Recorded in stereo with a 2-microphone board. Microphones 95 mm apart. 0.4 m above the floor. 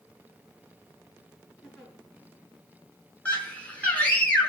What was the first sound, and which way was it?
A giggle, 5° left (ahead or behind).